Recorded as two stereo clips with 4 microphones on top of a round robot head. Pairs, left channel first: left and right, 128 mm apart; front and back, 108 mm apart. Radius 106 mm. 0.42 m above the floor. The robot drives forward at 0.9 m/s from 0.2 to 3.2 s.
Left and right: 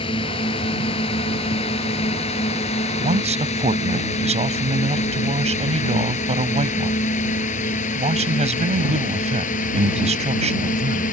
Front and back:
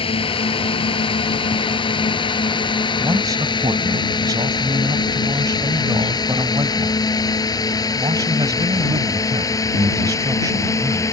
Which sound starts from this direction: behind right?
A man speaking, at 3.0 s.